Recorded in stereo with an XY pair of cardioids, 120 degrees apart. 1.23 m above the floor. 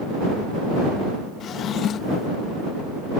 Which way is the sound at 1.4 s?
55° left.